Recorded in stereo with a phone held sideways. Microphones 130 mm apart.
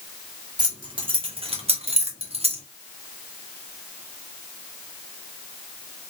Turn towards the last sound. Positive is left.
turn(degrees=-50)  # may be behind; listen again after turning